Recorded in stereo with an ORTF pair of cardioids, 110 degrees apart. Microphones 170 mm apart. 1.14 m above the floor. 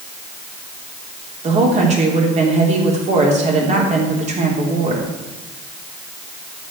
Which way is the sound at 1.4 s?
40° right.